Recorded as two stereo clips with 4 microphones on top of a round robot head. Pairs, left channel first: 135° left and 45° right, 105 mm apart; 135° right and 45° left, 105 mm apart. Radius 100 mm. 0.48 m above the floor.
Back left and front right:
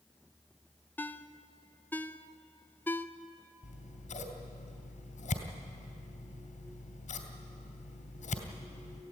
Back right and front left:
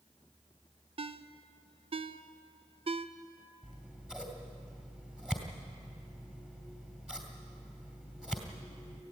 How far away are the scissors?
About 2.5 m.